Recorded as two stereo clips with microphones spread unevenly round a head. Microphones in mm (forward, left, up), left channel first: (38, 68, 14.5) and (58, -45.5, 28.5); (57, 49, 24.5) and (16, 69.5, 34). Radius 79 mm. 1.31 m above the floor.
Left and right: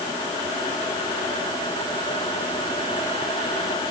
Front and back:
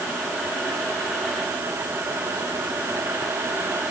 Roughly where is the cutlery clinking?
No cutlery clinking in this recording.